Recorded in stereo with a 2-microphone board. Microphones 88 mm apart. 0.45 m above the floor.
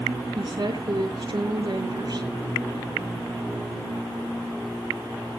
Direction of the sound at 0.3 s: 50° right (ahead or behind).